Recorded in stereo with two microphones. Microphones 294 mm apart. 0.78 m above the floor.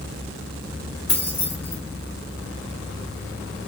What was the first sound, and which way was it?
Keys jangling, 55° left (ahead or behind).